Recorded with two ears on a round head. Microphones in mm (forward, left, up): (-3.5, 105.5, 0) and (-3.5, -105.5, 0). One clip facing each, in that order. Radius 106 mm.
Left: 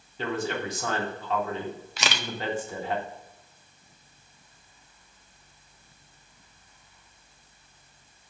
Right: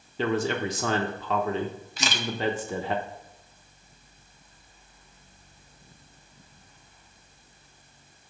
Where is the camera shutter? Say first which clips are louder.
Right 2 dB; 55° left (ahead or behind), 0.5 m.